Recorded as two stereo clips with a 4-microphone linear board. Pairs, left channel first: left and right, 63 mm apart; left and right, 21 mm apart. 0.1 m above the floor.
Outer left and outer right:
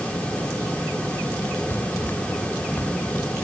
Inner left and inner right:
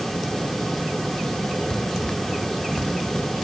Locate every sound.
1.7 s running footsteps: 35° left (ahead or behind)